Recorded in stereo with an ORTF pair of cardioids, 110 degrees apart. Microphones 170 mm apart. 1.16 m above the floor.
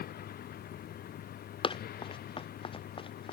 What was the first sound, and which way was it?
A vehicle, 65° left.